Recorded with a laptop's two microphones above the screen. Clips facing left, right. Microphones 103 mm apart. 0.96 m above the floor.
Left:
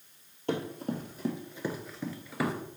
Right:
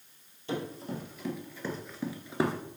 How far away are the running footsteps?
About 1.6 m.